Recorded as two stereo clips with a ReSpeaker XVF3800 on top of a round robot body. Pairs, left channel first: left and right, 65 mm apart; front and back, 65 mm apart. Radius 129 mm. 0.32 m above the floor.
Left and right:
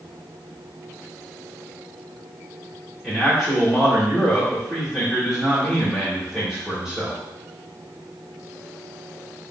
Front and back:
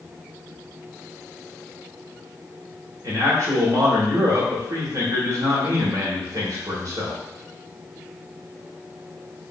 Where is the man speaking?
175° right, 1.6 m.